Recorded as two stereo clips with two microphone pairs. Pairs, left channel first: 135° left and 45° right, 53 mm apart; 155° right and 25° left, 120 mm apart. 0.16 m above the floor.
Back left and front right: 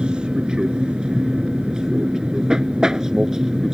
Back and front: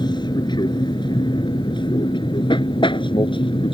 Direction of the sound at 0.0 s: 110° right.